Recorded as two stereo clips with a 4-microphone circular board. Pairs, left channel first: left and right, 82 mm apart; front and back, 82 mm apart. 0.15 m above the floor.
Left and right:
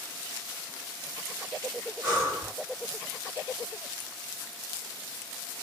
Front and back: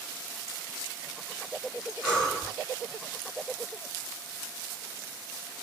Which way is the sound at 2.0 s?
70° right.